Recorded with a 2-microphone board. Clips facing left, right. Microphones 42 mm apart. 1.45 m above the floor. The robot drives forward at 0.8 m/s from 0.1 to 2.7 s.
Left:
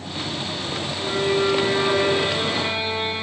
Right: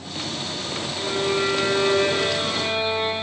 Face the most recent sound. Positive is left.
turn(degrees=-30)  # may be behind; listen again after turning